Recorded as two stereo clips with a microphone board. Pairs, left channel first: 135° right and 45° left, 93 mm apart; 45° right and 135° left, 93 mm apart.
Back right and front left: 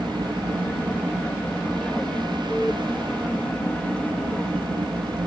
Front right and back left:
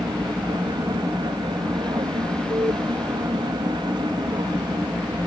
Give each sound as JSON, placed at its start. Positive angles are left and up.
{"t": 0.0, "sound": "an aircraft", "azimuth_deg": 150}